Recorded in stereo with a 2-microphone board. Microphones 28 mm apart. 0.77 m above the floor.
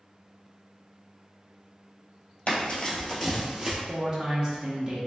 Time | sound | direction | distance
2.5 | running footsteps | 40° left (ahead or behind) | 1.1 m
3.9 | a man speaking | 25° right (ahead or behind) | 0.8 m